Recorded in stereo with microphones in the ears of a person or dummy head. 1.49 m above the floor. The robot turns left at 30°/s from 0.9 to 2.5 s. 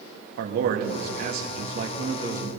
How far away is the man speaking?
About 1.8 m.